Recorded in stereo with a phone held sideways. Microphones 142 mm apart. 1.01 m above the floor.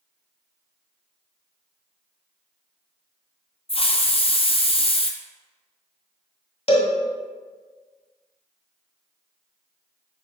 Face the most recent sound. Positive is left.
turn(degrees=50)  # may be behind; listen again after turning